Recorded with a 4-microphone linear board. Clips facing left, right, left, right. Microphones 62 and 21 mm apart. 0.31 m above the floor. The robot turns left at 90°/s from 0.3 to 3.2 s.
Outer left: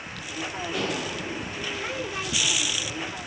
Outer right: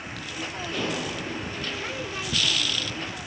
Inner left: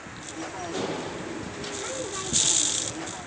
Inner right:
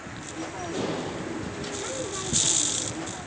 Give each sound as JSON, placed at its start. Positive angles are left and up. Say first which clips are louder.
{"t": 0.7, "sound": "dishes clattering", "louder": "even, inner right 1 dB", "azimuth_deg": 5, "distance_m": 6.0}